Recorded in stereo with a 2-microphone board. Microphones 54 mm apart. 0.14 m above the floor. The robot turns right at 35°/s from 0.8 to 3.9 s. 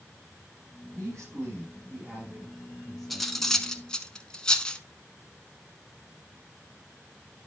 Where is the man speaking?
70° right, 6.5 m; by 3.7 s 25° left, 6.5 m.